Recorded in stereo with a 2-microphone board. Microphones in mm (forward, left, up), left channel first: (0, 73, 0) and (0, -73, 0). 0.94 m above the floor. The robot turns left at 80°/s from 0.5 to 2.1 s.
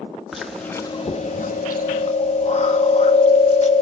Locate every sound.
0.3 s chewing: straight behind, 1.2 m; by 3.8 s 55° left, 1.2 m